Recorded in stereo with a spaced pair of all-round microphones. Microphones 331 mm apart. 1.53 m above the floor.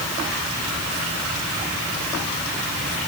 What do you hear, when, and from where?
Only background noise.